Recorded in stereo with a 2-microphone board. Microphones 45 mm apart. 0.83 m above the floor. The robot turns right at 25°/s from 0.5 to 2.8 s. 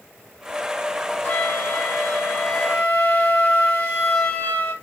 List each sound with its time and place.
1.2 s a flute: 55° left, 2 m; by 4.7 s 90° left, 2 m